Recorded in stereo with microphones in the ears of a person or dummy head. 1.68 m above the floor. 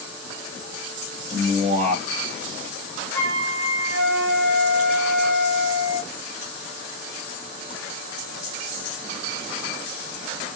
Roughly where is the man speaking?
Right.